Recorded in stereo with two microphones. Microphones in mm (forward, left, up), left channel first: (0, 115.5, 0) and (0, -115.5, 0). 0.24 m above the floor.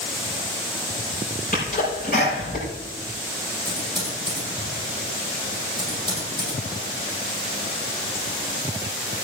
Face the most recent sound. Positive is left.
turn(degrees=-20)  # may be behind; listen again after turning